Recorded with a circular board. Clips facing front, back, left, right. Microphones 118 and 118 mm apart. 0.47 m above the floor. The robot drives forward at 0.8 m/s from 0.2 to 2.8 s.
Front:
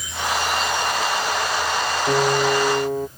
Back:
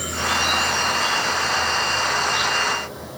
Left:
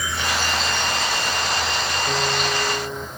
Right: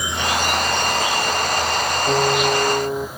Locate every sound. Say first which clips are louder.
0.0 s an insect: even, right 3 dB; 160° right; by 3.2 s 175° right
2.1 s a piano: front 5 dB, right 7 dB; 30° right